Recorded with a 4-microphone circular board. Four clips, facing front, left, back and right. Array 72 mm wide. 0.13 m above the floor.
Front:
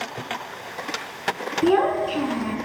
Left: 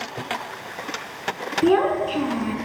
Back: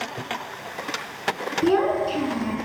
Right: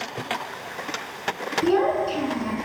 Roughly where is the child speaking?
Ahead left.